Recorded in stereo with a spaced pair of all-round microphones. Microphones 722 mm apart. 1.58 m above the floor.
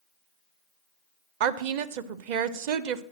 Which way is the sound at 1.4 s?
80° right.